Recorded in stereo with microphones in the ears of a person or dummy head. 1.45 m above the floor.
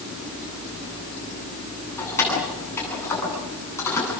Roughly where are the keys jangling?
Centre.